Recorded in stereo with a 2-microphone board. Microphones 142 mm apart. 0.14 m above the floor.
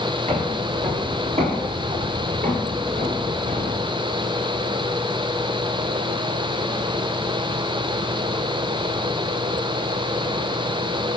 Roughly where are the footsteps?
Right.